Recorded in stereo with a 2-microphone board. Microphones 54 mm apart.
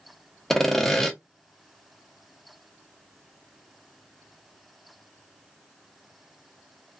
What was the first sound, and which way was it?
Sawing, 5° left (ahead or behind).